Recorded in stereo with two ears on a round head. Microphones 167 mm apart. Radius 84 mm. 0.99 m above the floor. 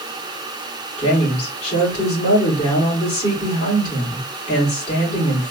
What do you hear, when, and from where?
1.0 s a woman speaking: 35° left (ahead or behind), 2.5 m